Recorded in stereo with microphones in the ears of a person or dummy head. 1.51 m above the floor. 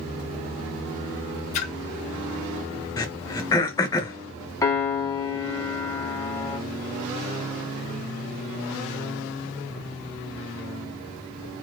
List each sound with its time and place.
1.5 s a splash: 40° left (ahead or behind), 0.7 m
3.0 s throat clearing: 20° left (ahead or behind), 0.8 m
4.6 s a piano: 20° left (ahead or behind), 1.0 m